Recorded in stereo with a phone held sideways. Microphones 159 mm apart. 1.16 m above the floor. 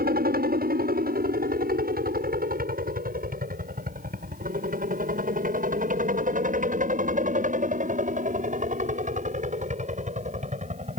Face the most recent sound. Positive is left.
turn(degrees=-45)  # may be behind; listen again after turning